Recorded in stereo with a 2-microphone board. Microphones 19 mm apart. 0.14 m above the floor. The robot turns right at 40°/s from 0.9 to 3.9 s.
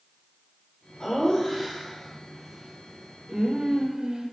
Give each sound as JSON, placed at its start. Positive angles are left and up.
{"t": 1.0, "sound": "laughter", "azimuth_deg": 135, "distance_m": 6.0}